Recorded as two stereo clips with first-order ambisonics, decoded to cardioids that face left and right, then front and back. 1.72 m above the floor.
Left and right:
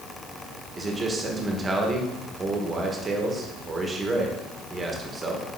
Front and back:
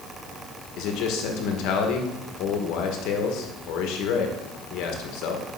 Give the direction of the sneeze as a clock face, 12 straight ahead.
I don't hear a sneeze.